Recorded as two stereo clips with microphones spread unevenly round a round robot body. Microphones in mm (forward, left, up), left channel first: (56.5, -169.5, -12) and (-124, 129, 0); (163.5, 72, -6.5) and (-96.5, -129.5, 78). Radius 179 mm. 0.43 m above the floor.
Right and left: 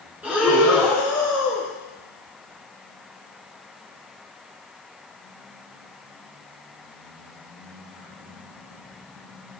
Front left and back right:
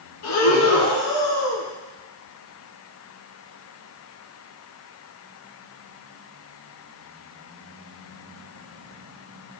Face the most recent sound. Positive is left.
turn(degrees=35)